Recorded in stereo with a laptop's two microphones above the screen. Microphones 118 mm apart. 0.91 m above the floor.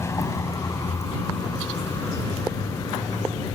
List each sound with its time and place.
0.0 s a vehicle: 25° left (ahead or behind); by 3.6 s 30° left (ahead or behind)